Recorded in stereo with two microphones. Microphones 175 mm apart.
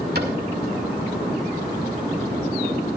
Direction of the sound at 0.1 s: 70° right (ahead or behind).